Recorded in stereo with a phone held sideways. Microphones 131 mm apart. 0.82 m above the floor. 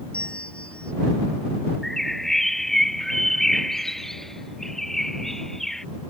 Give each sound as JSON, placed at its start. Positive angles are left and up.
{"t": 0.1, "sound": "a bell", "side_deg": 10}
{"t": 1.8, "sound": "a bird", "side_deg": 5}